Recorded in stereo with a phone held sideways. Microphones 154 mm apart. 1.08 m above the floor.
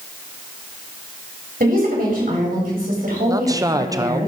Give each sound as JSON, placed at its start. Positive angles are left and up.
{"t": 1.6, "sound": "a woman speaking", "side_deg": -70, "distance_m": 4.0}
{"t": 3.3, "sound": "a man speaking", "side_deg": -20, "distance_m": 0.5}